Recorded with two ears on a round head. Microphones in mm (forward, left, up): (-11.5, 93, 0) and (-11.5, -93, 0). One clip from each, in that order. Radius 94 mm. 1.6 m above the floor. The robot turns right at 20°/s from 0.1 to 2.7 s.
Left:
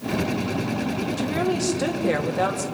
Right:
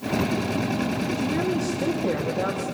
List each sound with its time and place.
1.2 s a woman speaking: 30° left (ahead or behind), 2.5 m; by 2.6 s 60° left (ahead or behind), 2.5 m